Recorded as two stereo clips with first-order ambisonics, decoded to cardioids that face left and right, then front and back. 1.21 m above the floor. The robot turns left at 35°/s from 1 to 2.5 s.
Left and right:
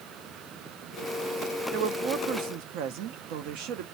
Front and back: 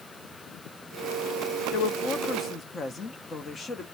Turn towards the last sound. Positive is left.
turn(degrees=-70)